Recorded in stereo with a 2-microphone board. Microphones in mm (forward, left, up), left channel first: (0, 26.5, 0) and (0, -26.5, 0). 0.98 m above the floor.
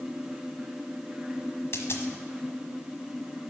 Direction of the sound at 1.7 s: 55° left (ahead or behind).